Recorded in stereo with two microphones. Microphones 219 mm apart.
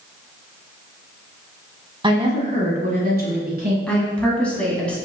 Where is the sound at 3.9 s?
5° left (ahead or behind), 1.4 m.